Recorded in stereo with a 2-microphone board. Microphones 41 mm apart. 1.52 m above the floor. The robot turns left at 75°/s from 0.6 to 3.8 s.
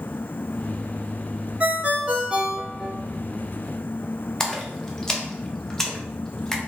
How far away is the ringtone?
About 0.6 m.